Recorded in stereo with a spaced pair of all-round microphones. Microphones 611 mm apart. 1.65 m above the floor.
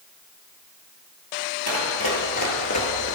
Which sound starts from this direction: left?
Running footsteps, at 1.7 s.